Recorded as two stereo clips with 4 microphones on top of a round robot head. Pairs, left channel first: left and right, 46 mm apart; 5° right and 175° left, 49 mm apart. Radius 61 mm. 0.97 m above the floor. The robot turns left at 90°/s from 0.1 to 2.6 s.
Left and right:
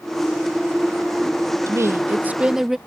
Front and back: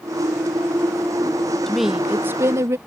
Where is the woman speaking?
85° right; by 2.8 s 170° right.